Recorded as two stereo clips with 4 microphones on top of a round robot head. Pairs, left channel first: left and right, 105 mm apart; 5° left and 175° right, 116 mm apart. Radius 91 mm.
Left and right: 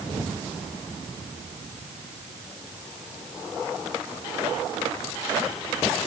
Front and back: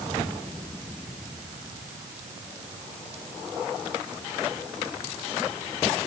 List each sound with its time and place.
Only background noise.